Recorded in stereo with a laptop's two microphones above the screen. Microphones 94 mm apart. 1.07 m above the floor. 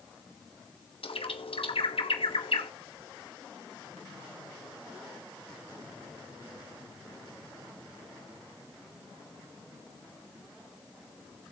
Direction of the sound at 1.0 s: 75° left (ahead or behind).